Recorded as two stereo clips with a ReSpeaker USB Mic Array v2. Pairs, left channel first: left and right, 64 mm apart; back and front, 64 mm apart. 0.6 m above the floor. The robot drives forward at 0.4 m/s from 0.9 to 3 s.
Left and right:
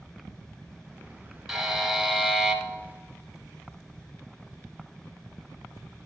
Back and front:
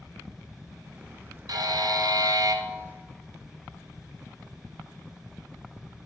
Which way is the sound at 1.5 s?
10° right.